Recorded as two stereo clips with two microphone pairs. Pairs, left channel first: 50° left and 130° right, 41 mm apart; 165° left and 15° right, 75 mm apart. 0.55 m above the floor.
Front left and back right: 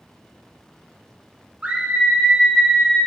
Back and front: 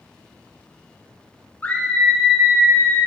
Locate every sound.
1.6 s a scream: 145° right, 0.7 m; by 3.0 s 30° right, 0.8 m